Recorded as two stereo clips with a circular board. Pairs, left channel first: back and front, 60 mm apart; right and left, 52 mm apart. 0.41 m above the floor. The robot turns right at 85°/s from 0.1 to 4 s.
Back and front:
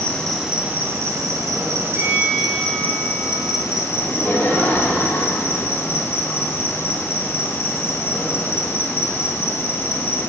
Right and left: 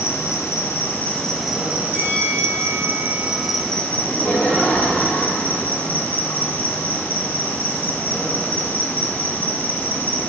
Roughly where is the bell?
Ahead.